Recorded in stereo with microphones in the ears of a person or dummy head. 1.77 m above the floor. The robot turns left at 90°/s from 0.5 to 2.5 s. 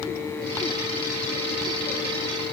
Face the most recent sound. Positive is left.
No sound to turn to.